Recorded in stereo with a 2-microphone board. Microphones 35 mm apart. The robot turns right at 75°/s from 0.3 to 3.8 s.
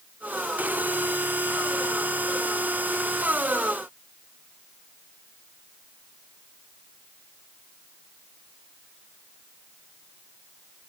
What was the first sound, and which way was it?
Only background noise.